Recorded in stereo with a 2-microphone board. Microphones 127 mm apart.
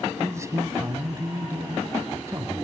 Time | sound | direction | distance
0.2 | a man speaking | 25° right (ahead or behind) | 1.8 m